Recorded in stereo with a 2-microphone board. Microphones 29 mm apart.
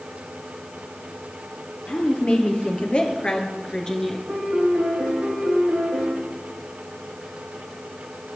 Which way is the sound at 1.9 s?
50° left (ahead or behind).